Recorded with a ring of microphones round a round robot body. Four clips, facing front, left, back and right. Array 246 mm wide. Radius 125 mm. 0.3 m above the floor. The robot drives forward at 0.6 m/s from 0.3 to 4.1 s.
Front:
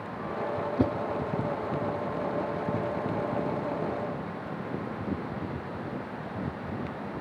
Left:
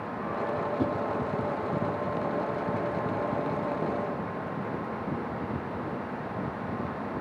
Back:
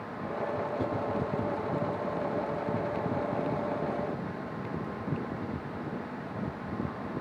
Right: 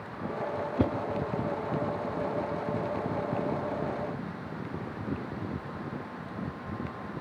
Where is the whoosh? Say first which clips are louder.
Right 3 dB, front 10 dB; 45° right, 1.0 m; by 0.9 s 50° right, 1.0 m.